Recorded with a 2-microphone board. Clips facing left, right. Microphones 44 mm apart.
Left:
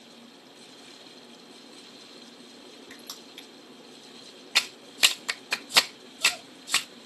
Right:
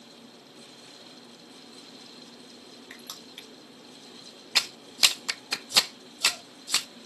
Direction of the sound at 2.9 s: 30° right (ahead or behind).